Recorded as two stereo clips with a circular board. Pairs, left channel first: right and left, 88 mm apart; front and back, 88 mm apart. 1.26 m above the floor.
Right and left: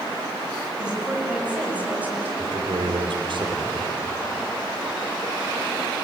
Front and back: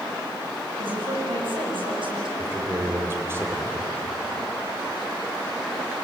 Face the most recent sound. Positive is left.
turn(degrees=115)